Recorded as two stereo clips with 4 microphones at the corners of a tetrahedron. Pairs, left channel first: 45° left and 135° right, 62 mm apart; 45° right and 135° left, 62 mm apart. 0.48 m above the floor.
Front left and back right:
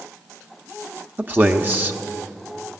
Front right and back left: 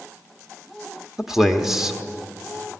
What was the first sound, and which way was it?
A man speaking, 145° right.